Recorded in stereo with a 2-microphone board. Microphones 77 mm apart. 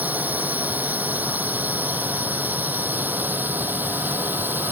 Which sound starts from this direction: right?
A drone, at 0.0 s.